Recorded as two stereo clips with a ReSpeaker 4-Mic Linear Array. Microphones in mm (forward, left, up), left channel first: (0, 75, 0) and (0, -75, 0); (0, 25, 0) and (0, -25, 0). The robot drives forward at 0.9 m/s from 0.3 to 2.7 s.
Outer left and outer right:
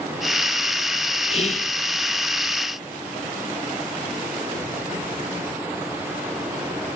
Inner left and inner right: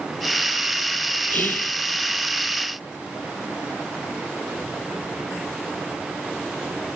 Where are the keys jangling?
No keys jangling in this recording.